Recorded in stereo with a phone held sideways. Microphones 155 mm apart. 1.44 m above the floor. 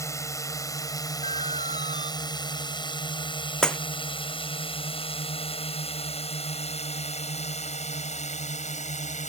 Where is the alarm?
45° right (ahead or behind).